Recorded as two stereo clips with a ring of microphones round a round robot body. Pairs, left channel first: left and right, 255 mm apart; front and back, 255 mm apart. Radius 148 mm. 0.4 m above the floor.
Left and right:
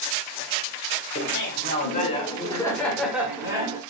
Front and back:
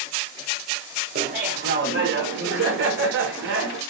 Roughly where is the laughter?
Behind left.